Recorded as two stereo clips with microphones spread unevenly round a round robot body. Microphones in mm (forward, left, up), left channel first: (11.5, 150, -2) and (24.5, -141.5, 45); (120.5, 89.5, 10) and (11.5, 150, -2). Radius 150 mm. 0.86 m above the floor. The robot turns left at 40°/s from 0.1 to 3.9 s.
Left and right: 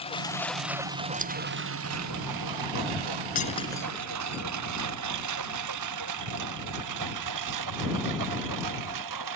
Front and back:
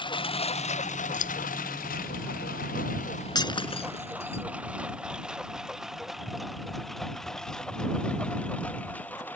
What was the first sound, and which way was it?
A lawn mower, 20° left.